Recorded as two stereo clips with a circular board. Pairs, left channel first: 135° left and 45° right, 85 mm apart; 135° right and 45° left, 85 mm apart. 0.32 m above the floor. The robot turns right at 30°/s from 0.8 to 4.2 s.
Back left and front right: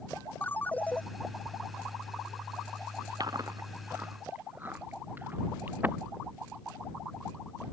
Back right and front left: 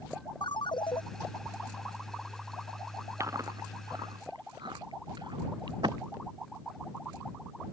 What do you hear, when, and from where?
0.4 s a ringtone: 155° right; by 1.0 s 150° right
3.2 s chewing: 10° right; by 6.0 s 20° left